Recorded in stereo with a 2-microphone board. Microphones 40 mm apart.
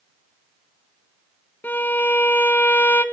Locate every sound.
1.6 s a violin: 55° left (ahead or behind), 0.8 m